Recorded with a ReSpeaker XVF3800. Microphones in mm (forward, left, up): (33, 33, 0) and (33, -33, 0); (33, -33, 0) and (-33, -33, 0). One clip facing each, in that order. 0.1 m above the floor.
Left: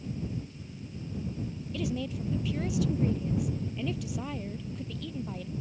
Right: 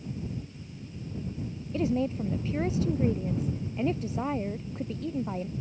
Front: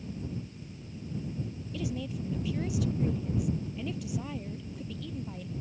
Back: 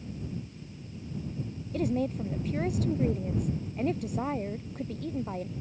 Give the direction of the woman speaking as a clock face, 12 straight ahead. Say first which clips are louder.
Right 6 dB, back 7 dB; 5 o'clock.